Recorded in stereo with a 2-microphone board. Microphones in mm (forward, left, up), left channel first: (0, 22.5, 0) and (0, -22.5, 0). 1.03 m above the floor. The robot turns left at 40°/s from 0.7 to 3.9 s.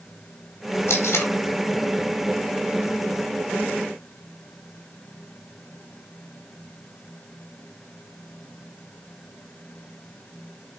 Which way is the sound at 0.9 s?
65° left (ahead or behind).